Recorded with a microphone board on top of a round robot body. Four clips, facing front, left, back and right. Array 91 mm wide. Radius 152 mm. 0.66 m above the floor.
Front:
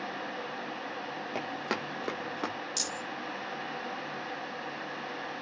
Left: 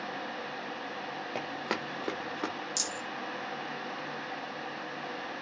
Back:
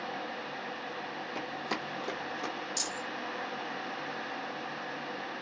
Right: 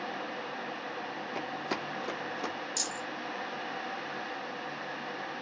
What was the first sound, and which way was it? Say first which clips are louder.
Running footsteps: left 1 dB, front 3 dB; 45° left.